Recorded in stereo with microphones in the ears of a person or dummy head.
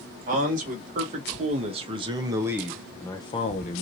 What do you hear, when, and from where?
0.3 s a man speaking: 45° right (ahead or behind), 1.6 m; by 3.8 s 45° left (ahead or behind), 0.7 m